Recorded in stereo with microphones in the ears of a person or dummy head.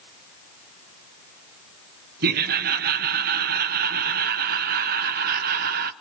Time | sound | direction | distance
2.2 | laughter | 45° right (ahead or behind) | 0.7 m